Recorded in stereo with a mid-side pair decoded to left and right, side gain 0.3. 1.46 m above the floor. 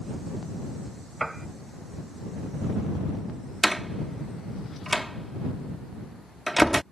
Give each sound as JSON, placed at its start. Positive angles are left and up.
{"t": 1.2, "sound": "a piano", "azimuth_deg": -15}
{"t": 3.6, "sound": "a door slam", "azimuth_deg": -10}